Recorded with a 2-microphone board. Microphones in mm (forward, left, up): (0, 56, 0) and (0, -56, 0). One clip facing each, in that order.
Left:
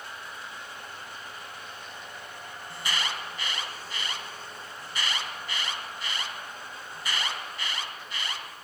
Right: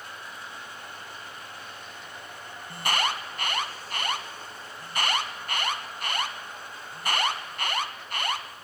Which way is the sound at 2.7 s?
55° right (ahead or behind).